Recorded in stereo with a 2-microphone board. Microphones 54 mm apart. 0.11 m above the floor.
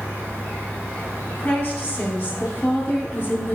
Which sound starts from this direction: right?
An insect, at 0.0 s.